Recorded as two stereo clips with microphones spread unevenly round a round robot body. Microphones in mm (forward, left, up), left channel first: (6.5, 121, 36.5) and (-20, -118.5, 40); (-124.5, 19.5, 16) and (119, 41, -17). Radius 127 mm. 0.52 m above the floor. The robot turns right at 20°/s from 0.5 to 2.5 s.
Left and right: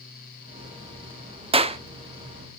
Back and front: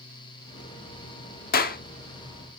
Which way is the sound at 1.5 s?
145° right.